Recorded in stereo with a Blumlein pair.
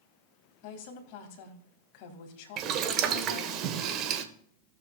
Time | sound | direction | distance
0.6 | a woman speaking | 45° left | 2 m
2.6 | boiling | 35° right | 0.9 m